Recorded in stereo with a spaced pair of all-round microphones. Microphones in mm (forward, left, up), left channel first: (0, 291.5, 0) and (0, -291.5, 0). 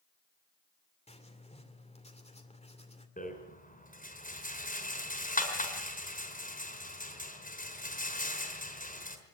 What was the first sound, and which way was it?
Writing, 10° left (ahead or behind).